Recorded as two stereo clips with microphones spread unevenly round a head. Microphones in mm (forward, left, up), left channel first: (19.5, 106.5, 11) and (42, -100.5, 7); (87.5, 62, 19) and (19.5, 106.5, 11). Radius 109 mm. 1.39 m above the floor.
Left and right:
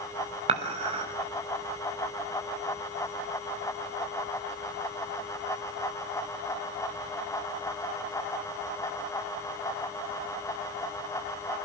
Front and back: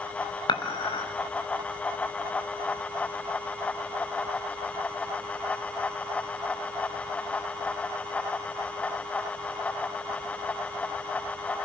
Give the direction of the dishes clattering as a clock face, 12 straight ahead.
1 o'clock.